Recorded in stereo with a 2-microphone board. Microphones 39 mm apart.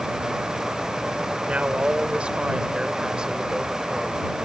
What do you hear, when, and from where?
1.5 s a woman speaking: 30° right (ahead or behind); by 4.5 s 10° right (ahead or behind)